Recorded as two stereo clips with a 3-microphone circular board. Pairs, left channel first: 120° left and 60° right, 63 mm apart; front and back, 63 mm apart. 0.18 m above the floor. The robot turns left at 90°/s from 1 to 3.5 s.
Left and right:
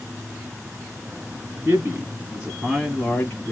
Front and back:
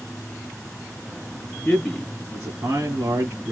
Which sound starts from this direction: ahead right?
A man speaking, at 1.6 s.